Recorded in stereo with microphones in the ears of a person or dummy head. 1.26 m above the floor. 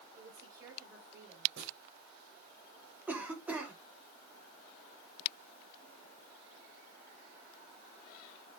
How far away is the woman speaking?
About 5.5 m.